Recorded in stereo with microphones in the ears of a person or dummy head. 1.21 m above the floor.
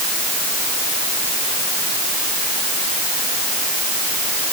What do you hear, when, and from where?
Only background noise.